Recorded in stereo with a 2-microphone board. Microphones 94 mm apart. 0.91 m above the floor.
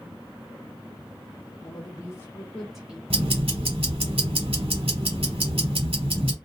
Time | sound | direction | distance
1.6 | a woman speaking | 45° left (ahead or behind) | 0.9 m
3.1 | ticking | 85° right | 1.4 m